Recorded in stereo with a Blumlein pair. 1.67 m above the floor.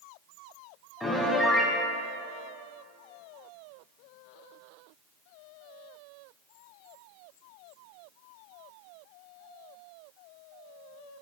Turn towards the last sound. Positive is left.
turn(degrees=5)